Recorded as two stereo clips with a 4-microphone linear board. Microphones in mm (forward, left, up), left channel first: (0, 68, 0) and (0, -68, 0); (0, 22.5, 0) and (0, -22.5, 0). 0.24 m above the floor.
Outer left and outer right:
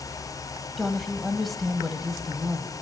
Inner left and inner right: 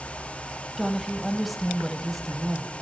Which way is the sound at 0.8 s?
Centre (ahead or behind).